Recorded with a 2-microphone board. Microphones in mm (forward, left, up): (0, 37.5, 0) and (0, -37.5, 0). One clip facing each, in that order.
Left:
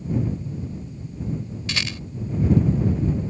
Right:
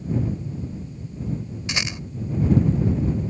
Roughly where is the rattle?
Centre.